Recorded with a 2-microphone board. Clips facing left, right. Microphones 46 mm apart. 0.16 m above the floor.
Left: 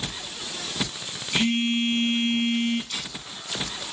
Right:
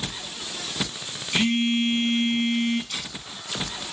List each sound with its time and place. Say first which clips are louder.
1.3 s a phone buzzing: right 1 dB; 15° right (ahead or behind), 0.7 m
2.9 s a camera shutter: even; 10° right (ahead or behind), 1.2 m